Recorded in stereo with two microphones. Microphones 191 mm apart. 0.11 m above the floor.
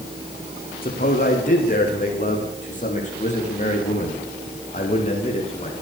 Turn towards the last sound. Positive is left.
turn(degrees=35)  # may be behind; listen again after turning